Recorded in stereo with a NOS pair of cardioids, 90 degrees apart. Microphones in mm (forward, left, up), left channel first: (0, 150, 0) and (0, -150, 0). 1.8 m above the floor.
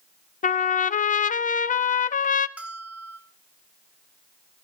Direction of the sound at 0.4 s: 25° left.